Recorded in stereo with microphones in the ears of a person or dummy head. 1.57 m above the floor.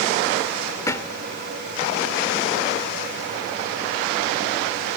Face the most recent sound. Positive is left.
turn(degrees=20)  # may be behind; listen again after turning